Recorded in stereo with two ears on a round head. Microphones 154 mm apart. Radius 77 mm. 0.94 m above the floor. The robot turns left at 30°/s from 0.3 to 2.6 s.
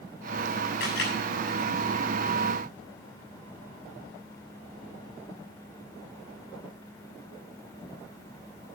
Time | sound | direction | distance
0.8 | a camera shutter | 75° left (ahead or behind) | 7.5 m